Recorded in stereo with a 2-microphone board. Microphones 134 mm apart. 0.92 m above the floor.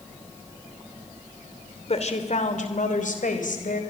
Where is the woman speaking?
50° left (ahead or behind), 2.5 m; by 3.8 s 80° left, 4 m.